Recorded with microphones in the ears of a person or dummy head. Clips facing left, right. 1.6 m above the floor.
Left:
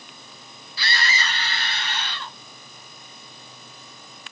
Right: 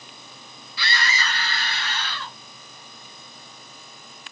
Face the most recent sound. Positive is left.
turn(degrees=15)  # may be behind; listen again after turning